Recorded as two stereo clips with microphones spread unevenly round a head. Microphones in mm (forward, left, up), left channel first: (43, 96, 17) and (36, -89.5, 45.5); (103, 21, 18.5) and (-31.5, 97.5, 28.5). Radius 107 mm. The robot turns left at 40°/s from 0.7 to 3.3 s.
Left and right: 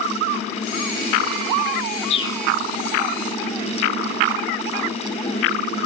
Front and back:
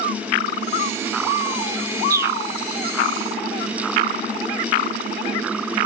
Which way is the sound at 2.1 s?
90° left.